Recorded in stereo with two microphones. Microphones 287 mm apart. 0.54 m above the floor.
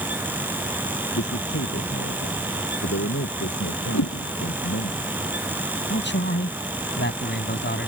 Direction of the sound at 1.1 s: 50° left (ahead or behind).